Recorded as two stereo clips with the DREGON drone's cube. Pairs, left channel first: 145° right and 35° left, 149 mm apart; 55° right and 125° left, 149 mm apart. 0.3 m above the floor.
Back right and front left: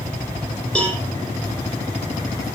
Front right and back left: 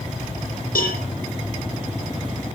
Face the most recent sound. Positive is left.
turn(degrees=-60)